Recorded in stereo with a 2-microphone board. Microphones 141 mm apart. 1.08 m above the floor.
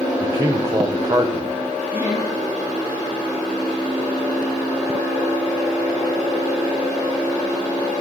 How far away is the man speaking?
About 0.7 m.